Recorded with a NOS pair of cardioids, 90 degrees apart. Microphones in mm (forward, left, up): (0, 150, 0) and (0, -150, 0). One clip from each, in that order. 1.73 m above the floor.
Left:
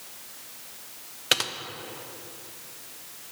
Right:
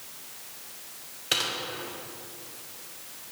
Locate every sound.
1.3 s typing on a keyboard: 50° left, 0.9 m